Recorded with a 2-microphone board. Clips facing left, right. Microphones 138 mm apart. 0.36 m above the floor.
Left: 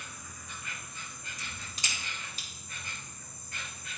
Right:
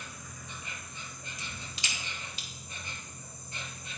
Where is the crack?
45° left (ahead or behind), 1.6 m.